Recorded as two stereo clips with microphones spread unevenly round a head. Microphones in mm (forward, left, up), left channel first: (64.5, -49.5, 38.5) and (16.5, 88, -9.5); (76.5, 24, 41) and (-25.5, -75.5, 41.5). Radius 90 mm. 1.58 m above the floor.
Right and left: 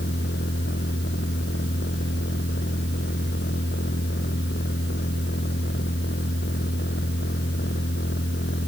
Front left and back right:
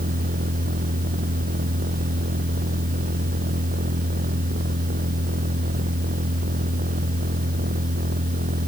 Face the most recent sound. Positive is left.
turn(degrees=-110)